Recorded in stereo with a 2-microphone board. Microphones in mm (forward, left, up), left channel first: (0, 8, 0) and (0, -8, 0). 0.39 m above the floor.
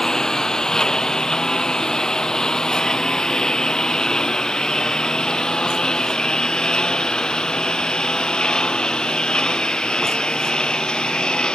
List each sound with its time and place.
0.0 s a lawn mower: 40° left (ahead or behind); by 11.6 s 70° left (ahead or behind)